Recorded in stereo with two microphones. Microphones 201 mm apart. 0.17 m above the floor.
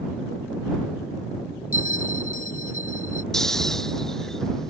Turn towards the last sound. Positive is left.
turn(degrees=0)  # may be behind; listen again after turning